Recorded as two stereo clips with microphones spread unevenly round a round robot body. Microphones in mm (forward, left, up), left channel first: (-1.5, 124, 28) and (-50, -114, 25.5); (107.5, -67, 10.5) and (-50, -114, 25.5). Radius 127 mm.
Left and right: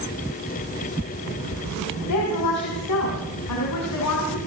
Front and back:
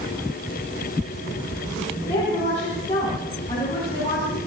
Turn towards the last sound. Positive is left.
turn(degrees=85)